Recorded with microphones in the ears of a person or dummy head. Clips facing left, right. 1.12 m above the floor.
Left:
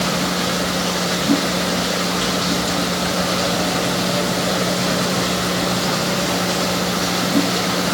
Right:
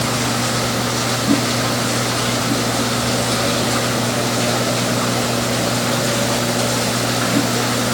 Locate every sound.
Only background noise.